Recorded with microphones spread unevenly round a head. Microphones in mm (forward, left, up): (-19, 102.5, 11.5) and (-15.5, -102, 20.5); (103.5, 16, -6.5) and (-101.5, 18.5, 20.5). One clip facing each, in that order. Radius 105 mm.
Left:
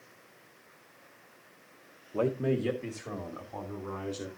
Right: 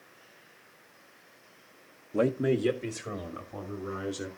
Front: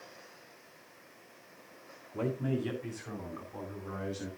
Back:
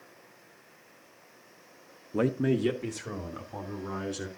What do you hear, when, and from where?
2.1 s a man speaking: 155° right, 0.8 m; by 4.3 s 165° right, 4 m